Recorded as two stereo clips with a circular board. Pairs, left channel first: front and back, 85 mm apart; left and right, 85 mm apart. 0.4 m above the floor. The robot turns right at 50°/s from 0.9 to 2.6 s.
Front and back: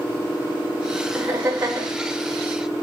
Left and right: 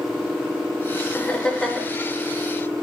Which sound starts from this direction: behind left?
Laughter, at 1.1 s.